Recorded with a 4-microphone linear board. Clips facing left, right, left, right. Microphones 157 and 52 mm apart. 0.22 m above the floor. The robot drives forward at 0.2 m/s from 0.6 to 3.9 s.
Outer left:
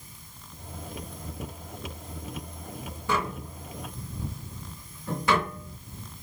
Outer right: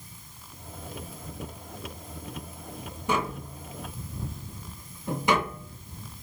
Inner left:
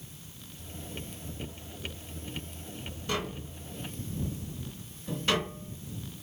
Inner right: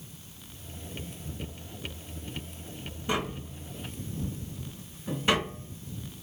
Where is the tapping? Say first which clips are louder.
Outer right 1 dB, inner right 3 dB; 20° right (ahead or behind), 2.5 m.